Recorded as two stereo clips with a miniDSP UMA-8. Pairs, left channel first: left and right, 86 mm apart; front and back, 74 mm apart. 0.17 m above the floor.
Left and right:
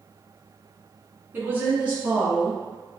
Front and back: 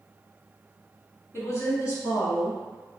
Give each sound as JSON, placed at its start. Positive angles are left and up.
{"t": 1.3, "sound": "a woman speaking", "azimuth_deg": -30, "distance_m": 1.4}